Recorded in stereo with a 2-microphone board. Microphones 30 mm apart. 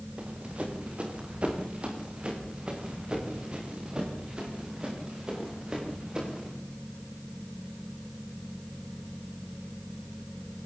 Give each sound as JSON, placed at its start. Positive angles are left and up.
{"t": 0.2, "sound": "running footsteps", "side_deg": -50, "distance_m": 6.0}